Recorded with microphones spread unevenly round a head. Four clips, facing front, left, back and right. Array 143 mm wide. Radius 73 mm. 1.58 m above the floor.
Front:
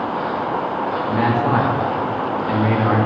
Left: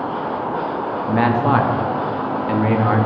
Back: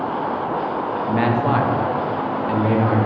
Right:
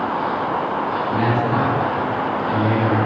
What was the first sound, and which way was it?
A man speaking, 80° left.